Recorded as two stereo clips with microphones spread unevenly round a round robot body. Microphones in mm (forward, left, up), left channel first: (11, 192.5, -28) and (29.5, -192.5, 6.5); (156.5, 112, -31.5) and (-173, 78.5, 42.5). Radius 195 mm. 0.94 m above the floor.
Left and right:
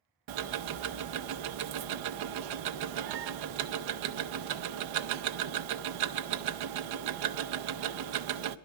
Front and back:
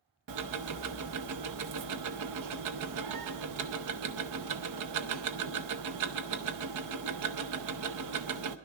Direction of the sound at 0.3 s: 125° right.